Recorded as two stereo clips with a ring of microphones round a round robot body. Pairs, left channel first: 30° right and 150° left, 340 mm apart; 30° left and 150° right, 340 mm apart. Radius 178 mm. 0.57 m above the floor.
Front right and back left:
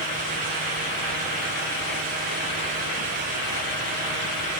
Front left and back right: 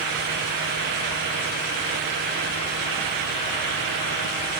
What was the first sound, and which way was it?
Only background noise.